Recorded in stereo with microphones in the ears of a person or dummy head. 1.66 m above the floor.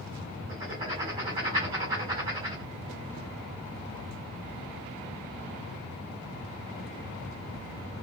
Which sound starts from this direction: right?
Writing, at 0.5 s.